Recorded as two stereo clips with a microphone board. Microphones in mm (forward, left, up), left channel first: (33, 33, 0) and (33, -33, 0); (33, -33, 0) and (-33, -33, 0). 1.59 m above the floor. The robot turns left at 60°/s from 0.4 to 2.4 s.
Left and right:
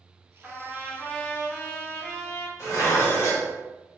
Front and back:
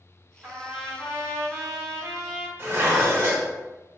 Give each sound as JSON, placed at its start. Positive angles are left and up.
{"t": 0.4, "sound": "a trumpet", "azimuth_deg": -130, "distance_m": 0.9}
{"t": 2.6, "sound": "dishes clattering", "azimuth_deg": 130, "distance_m": 1.7}